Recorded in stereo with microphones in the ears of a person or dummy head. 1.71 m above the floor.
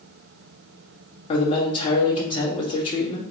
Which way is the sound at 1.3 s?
40° left (ahead or behind).